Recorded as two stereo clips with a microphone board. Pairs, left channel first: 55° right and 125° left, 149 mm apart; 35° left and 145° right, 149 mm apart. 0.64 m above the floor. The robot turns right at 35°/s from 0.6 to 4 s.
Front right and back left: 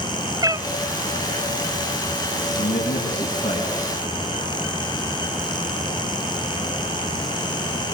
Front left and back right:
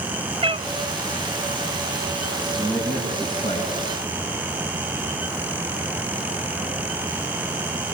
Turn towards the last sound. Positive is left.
turn(degrees=-5)